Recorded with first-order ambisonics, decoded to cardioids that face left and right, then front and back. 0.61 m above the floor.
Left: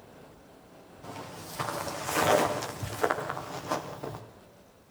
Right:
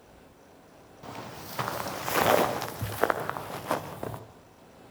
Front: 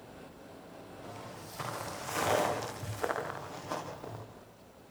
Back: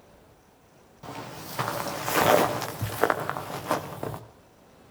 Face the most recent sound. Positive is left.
turn(degrees=-150)